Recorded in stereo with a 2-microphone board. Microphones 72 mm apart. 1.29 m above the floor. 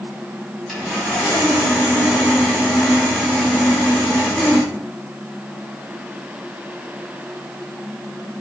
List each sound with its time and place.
0.7 s sawing: 5° left (ahead or behind), 4.5 m